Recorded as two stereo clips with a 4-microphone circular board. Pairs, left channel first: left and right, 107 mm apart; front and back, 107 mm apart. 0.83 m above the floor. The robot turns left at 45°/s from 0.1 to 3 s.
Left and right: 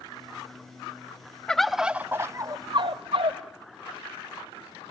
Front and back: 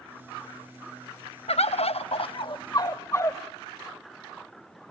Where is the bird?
10° left, 0.7 m; by 3.4 s 60° right, 0.7 m.